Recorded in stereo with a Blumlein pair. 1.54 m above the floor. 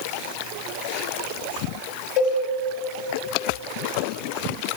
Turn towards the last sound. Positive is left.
turn(degrees=35)